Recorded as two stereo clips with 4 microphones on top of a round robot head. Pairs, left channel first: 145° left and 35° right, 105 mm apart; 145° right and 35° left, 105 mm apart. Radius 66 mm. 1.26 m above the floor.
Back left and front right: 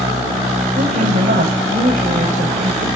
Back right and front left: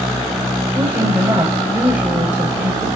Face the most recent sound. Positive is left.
turn(degrees=-35)